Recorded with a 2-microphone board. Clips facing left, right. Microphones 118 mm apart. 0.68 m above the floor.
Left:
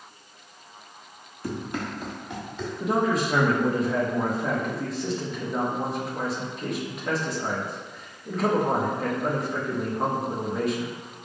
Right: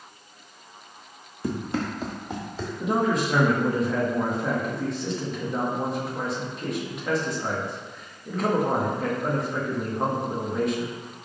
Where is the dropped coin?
I don't hear a dropped coin.